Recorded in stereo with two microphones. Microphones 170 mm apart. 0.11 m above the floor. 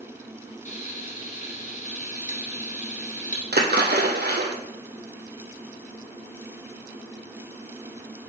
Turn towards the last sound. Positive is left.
turn(degrees=-70)  # may be behind; listen again after turning